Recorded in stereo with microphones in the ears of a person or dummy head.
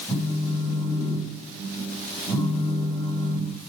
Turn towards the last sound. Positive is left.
turn(degrees=5)  # may be behind; listen again after turning